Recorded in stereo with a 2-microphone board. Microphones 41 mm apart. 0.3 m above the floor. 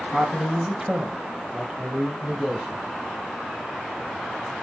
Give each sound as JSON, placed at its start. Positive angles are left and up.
{"t": 0.1, "sound": "a man speaking", "side_deg": -10, "distance_m": 2.0}